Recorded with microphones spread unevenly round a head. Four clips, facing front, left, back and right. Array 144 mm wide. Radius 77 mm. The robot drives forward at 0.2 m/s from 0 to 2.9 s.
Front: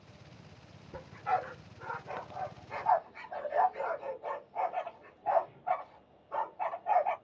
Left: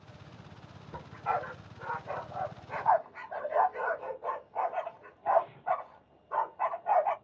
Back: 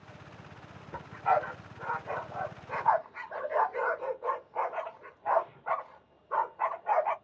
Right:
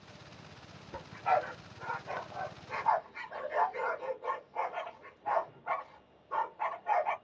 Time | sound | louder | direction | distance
0.9 | a dog barking | right 3 dB, back 5 dB | 175° left | 2 m